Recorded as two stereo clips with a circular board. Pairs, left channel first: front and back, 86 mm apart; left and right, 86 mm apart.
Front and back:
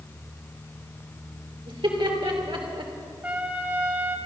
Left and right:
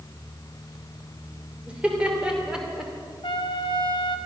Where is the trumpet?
110° left, 0.9 m.